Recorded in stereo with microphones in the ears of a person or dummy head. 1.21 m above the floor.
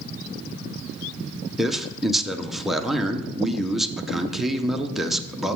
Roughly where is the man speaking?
Centre.